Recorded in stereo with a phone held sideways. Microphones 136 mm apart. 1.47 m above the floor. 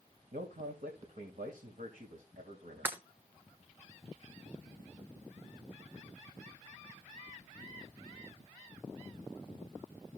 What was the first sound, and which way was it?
A man speaking, 75° right (ahead or behind).